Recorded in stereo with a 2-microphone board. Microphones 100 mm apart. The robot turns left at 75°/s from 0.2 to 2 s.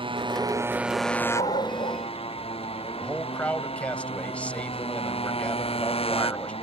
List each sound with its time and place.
0.0 s a motorcycle: 120° right; by 6.6 s 105° left
1.4 s a dog barking: 105° left; by 2.0 s 55° left
3.0 s a man speaking: 15° left (ahead or behind)